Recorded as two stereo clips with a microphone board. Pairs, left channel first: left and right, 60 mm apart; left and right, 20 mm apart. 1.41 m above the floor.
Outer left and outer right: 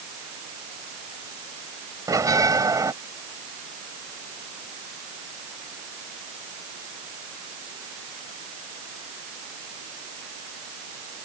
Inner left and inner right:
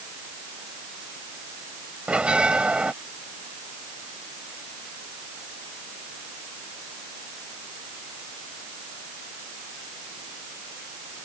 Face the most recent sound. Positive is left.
turn(degrees=-70)  # may be behind; listen again after turning